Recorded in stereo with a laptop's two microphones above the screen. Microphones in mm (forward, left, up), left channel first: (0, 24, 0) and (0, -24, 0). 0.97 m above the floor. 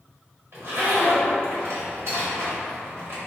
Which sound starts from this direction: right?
A zipper, at 0.5 s.